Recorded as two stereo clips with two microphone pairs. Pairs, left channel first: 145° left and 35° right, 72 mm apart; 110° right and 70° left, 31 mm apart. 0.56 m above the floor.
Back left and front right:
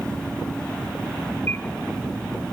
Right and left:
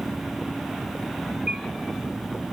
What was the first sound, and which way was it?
A bird, 100° left.